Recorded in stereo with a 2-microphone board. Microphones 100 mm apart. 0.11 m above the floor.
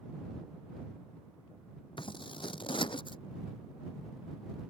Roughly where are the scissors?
Left.